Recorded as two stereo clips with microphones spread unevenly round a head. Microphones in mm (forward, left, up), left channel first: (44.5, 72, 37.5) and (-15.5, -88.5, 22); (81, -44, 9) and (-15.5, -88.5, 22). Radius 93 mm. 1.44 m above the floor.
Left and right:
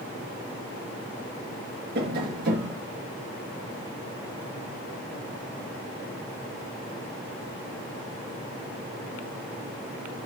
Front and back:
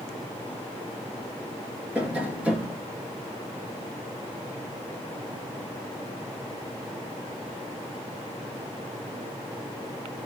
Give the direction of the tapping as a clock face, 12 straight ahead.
3 o'clock.